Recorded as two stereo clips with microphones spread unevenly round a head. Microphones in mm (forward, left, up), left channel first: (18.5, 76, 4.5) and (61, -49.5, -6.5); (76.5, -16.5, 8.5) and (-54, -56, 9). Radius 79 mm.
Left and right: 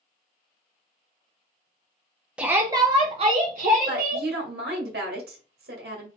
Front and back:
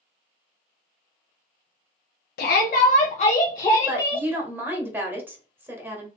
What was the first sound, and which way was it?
A shout, 10° left.